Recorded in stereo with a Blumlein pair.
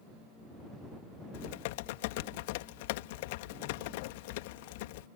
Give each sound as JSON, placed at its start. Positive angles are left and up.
{"t": 1.3, "sound": "typing on a keyboard", "azimuth_deg": 50}